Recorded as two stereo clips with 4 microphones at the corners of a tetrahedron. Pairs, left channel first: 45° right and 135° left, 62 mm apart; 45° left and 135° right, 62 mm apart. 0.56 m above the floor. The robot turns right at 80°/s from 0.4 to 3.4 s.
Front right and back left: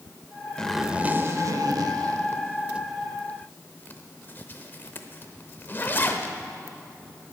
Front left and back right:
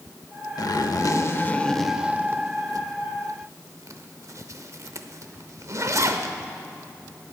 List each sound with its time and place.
0.6 s a zipper: 35° left, 0.9 m; by 6.3 s 100° right, 0.9 m